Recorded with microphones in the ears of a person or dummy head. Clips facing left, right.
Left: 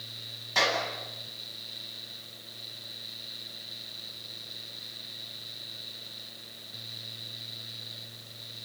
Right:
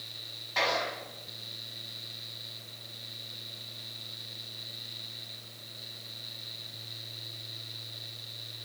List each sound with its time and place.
0.6 s a clap: 55° left (ahead or behind), 9.5 m